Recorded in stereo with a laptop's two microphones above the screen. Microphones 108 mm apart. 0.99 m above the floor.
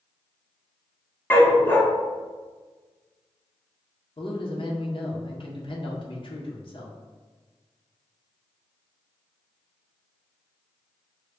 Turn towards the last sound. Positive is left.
turn(degrees=50)  # may be behind; listen again after turning